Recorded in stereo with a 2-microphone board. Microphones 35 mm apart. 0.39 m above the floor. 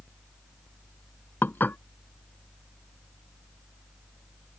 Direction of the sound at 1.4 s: 75° left (ahead or behind).